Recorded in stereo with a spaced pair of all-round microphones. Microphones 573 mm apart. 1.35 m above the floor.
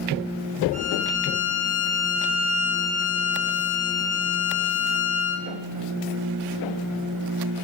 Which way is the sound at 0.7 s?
15° left (ahead or behind).